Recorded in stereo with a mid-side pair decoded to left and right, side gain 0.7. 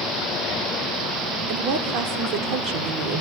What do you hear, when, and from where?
1.5 s a woman speaking: 55° right, 3.5 m